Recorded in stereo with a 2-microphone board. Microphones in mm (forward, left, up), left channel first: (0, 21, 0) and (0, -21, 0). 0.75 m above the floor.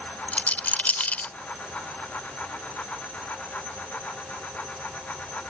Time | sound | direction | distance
0.3 | a rattle | 40° left (ahead or behind) | ?